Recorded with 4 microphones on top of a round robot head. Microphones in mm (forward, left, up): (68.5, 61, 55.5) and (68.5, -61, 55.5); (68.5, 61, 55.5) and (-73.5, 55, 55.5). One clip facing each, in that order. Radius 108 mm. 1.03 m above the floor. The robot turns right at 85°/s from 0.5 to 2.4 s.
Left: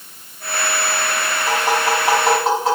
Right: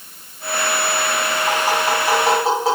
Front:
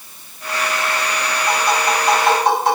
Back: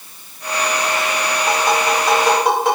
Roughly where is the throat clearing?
I don't hear throat clearing.